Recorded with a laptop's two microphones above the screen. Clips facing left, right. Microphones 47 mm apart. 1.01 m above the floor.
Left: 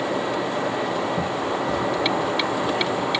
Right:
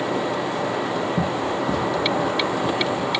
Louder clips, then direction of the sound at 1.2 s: Right 1 dB; 55° right (ahead or behind).